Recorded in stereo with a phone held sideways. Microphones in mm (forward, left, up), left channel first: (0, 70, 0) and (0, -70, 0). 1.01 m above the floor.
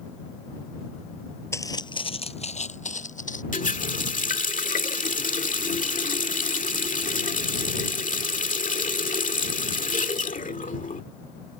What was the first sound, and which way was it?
Footsteps, 20° left (ahead or behind).